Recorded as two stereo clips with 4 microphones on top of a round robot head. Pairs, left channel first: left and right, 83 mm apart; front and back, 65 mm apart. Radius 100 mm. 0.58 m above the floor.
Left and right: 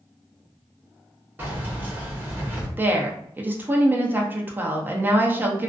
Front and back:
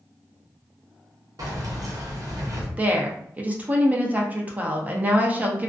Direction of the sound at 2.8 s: 135° right.